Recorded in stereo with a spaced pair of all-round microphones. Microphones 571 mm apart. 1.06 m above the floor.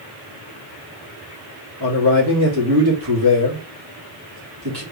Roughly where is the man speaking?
Right.